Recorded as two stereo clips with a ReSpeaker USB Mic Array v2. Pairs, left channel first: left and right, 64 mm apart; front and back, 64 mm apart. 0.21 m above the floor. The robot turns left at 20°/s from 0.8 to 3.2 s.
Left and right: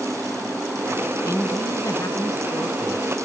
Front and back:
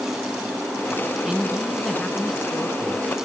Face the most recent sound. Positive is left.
turn(degrees=65)